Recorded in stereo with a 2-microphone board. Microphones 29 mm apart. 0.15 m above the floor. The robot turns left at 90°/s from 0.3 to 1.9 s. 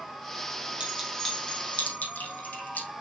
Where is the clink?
35° right (ahead or behind), 3.5 m; by 2.9 s 65° left (ahead or behind), 3.5 m.